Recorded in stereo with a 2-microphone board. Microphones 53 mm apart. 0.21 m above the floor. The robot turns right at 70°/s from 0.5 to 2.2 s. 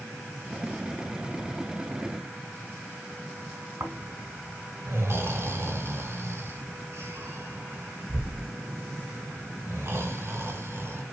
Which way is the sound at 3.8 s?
50° right (ahead or behind).